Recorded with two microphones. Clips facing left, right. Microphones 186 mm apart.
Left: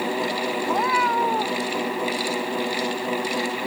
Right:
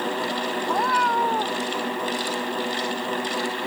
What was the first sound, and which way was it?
A cat meowing, 5° left (ahead or behind).